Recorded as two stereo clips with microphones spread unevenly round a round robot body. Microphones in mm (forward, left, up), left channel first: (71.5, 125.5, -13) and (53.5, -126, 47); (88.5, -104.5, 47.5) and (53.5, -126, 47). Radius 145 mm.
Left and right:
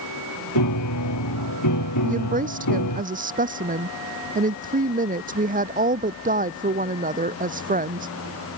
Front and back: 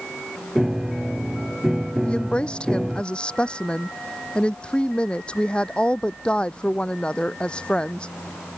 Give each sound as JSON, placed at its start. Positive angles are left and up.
{"t": 0.6, "sound": "a piano", "azimuth_deg": 125}
{"t": 2.0, "sound": "a woman speaking", "azimuth_deg": -35}